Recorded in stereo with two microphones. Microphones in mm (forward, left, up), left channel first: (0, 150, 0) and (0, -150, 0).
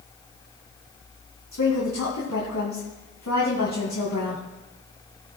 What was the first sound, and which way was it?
A woman speaking, 75° left (ahead or behind).